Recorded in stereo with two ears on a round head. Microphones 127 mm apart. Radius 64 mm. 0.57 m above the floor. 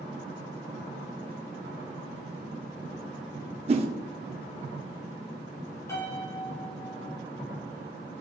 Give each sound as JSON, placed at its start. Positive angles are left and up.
{"t": 3.7, "sound": "a whoosh", "side_deg": -40, "distance_m": 0.8}
{"t": 5.9, "sound": "a piano", "side_deg": 20, "distance_m": 1.8}